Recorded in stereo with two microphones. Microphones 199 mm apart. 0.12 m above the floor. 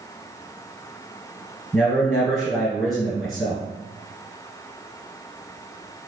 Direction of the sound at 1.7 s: Centre (ahead or behind).